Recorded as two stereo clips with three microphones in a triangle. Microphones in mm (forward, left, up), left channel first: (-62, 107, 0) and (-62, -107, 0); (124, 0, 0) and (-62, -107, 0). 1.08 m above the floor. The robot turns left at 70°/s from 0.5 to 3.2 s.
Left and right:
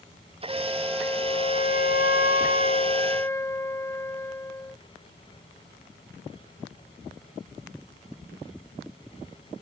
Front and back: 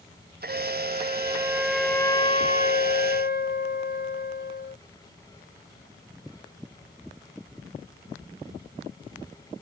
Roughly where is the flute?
Behind right.